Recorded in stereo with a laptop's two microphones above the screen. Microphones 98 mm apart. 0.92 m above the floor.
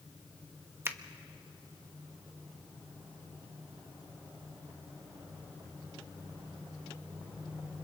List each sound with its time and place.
0.8 s a finger snap: 25° right (ahead or behind), 1.0 m